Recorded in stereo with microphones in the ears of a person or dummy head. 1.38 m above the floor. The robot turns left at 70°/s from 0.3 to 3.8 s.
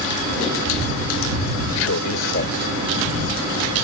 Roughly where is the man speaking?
Left.